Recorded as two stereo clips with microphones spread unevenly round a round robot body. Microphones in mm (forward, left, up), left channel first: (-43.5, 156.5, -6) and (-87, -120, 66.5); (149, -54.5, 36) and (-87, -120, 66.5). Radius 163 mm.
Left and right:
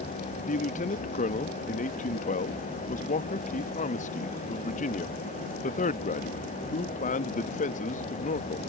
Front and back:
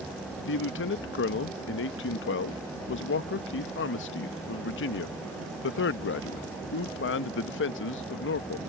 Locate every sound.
0.5 s a man speaking: 30° left